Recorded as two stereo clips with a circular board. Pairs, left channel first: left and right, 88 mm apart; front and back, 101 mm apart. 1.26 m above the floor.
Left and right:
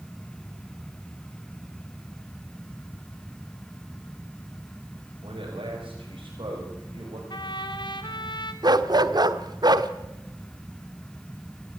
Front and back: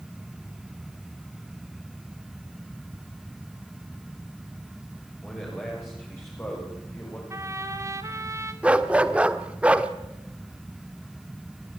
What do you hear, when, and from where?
5.2 s a man speaking: 75° right, 6.5 m; by 7.2 s 60° right, 7 m
7.3 s a trumpet: 120° left, 2 m
8.6 s a dog barking: 105° right, 1.2 m